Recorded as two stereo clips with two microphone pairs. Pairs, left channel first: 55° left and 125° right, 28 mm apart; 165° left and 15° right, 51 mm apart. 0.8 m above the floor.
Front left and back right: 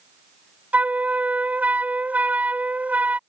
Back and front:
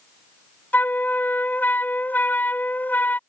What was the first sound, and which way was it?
A flute, 140° right.